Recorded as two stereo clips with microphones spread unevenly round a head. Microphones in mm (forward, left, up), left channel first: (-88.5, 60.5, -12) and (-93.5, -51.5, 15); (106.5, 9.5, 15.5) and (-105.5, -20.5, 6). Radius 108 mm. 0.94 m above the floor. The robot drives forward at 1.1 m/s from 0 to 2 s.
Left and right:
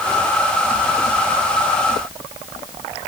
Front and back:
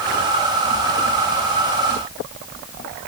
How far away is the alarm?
No alarm in this recording.